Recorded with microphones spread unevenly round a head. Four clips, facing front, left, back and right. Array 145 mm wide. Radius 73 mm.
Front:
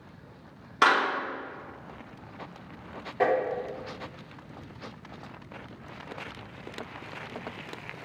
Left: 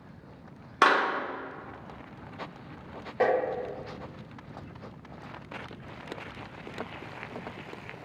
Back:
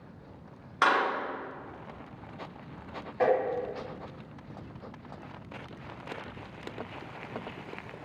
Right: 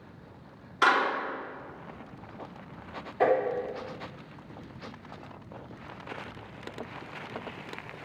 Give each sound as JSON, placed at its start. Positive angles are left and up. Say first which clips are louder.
{"t": 0.8, "sound": "a clap", "louder": "left 1 dB, front 2 dB", "azimuth_deg": 60, "distance_m": 1.8}
{"t": 3.2, "sound": "tapping", "louder": "right 1 dB, even", "azimuth_deg": 65, "distance_m": 2.0}